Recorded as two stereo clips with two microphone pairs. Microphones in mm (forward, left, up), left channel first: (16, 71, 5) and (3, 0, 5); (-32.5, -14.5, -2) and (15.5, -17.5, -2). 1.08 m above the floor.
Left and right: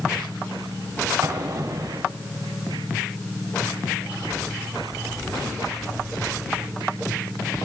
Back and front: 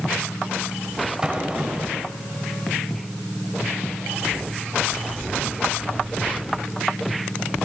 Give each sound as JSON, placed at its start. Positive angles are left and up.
{"t": 1.2, "sound": "an explosion", "azimuth_deg": -75, "distance_m": 3.0}